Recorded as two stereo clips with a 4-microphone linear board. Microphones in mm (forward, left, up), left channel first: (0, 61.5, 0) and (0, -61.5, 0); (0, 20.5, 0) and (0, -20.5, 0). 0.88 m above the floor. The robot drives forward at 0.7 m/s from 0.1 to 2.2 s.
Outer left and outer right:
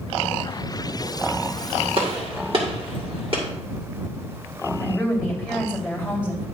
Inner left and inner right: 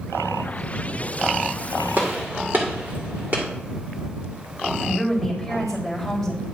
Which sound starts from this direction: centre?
A woman speaking, at 4.8 s.